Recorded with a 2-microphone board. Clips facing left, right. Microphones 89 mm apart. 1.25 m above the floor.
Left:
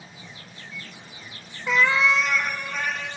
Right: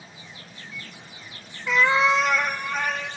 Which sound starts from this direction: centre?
A cat meowing, at 1.7 s.